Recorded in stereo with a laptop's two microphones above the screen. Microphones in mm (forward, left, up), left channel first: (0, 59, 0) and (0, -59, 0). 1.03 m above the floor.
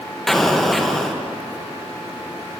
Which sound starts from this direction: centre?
An explosion, at 0.3 s.